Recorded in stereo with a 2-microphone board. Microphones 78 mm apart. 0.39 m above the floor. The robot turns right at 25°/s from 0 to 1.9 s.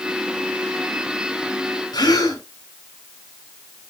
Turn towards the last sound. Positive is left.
turn(degrees=65)  # may be behind; listen again after turning